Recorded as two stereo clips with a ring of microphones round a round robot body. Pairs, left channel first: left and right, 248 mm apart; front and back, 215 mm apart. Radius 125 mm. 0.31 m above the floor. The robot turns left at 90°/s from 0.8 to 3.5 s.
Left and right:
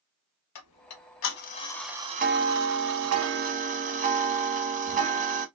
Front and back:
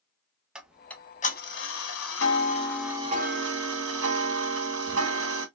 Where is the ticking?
95° left, 0.8 m; by 5.5 s 150° right, 0.8 m.